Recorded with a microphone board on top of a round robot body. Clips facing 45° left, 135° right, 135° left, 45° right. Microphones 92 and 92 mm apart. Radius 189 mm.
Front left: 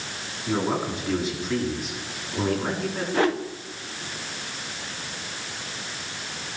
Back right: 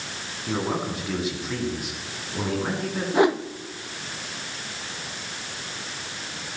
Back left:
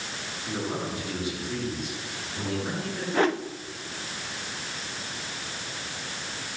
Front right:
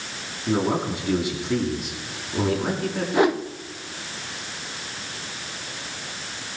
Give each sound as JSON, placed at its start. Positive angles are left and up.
{"t": 0.5, "sound": "a man speaking", "azimuth_deg": -45, "distance_m": 6.5}
{"t": 3.1, "sound": "a whoosh", "azimuth_deg": -95, "distance_m": 1.2}